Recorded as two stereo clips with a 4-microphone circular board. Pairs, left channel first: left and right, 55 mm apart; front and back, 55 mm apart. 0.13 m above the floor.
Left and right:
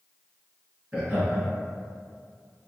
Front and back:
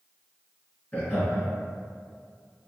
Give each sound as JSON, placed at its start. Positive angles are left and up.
{"t": 0.9, "sound": "laughter", "azimuth_deg": -35, "distance_m": 1.9}